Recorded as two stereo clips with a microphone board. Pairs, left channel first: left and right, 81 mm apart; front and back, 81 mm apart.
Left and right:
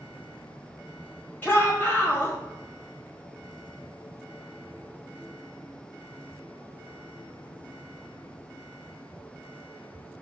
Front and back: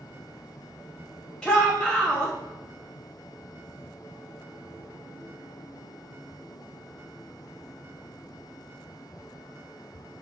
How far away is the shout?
About 1.3 m.